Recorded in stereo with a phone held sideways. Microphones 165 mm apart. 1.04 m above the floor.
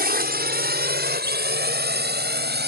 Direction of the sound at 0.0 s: 70° right (ahead or behind).